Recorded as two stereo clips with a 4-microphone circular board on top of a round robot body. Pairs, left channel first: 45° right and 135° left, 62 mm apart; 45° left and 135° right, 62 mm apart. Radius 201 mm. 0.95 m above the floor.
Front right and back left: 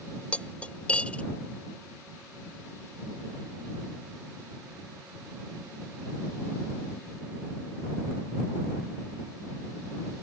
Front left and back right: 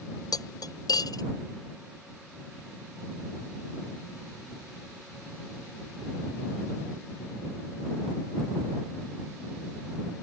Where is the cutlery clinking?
30° left.